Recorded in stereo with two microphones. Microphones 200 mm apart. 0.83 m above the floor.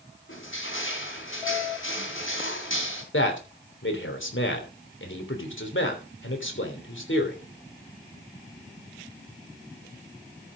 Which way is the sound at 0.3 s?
90° left.